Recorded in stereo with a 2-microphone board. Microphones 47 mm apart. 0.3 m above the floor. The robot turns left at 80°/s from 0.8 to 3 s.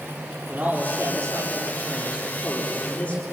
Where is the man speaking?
30° right, 7.5 m; by 3.2 s 150° left, 7.5 m.